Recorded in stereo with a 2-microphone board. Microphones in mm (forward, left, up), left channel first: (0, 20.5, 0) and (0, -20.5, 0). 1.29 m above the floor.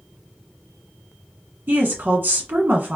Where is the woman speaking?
65° right (ahead or behind), 1.1 m.